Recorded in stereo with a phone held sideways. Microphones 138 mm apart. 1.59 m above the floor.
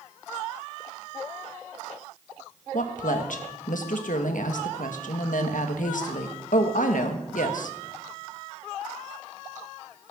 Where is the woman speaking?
70° left (ahead or behind), 1.7 m.